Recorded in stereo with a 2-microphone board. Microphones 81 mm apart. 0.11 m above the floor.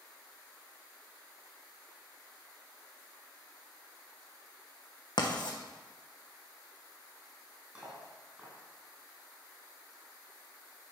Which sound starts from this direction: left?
Writing, at 5.2 s.